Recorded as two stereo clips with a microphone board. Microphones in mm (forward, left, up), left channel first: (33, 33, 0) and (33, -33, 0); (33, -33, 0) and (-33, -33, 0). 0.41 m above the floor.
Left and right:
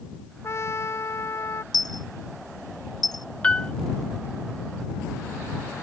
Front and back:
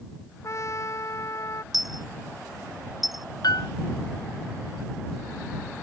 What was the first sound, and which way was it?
A trumpet, 45° left.